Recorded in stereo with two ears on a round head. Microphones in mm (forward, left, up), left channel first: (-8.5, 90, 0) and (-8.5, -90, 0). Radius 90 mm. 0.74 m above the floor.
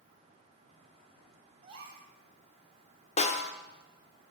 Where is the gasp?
25° right (ahead or behind), 2.5 m.